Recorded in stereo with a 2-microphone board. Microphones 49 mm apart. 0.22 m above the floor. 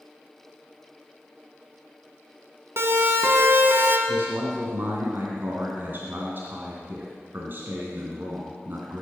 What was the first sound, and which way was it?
A siren, 55° right (ahead or behind).